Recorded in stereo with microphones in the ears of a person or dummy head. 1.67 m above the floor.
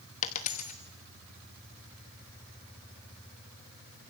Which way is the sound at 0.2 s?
30° left (ahead or behind).